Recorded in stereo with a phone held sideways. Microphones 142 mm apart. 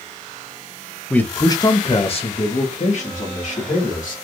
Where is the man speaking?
10° left (ahead or behind), 0.6 m; by 4.2 s 65° left (ahead or behind), 1.9 m.